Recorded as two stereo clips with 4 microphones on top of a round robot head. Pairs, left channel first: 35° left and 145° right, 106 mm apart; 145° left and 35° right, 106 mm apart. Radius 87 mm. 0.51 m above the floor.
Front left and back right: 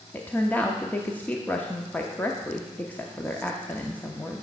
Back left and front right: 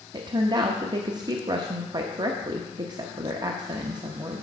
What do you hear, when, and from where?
0.1 s a woman speaking: 35° right, 0.9 m